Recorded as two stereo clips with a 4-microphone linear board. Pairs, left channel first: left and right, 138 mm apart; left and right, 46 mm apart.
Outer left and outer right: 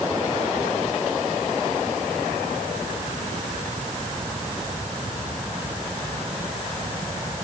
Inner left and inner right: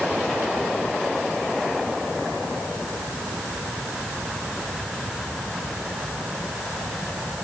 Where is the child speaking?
I don't hear a child speaking.